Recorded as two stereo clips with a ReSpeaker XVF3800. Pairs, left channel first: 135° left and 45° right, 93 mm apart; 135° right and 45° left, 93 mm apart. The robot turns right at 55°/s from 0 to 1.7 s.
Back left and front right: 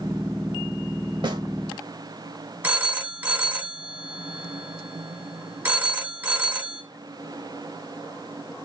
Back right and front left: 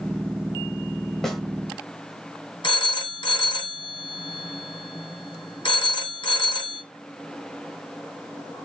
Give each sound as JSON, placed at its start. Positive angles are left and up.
{"t": 1.2, "sound": "a snare drum", "azimuth_deg": -50, "distance_m": 1.4}
{"t": 2.6, "sound": "a phone ringing", "azimuth_deg": -115, "distance_m": 2.0}